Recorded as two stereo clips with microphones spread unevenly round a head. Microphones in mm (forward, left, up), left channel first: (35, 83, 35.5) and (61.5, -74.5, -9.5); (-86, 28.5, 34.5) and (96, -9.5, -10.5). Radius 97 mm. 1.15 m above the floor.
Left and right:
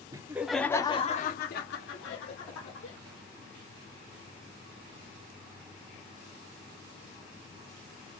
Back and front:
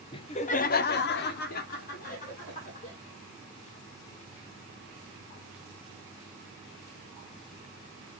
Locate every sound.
0.1 s laughter: 120° right, 0.6 m; by 3.0 s 115° left, 1.3 m